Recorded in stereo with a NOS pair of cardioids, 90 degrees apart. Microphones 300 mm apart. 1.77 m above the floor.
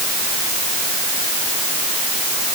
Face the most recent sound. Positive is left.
No sound to turn to.